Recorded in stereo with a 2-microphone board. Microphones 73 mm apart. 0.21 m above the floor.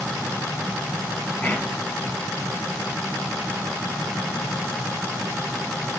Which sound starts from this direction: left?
Whispering, at 1.4 s.